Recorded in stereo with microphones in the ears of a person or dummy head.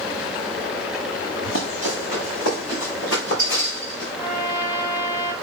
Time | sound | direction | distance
1.4 | running footsteps | 65° left (ahead or behind) | 3.5 m
4.2 | a trumpet | 35° left (ahead or behind) | 4 m